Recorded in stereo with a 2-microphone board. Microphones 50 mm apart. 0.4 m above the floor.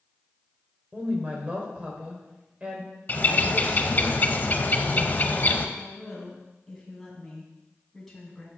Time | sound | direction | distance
0.9 | a woman speaking | 25° right (ahead or behind) | 1.7 m
3.1 | a bird | 35° left (ahead or behind) | 0.5 m
5.8 | a woman speaking | 5° left (ahead or behind) | 3 m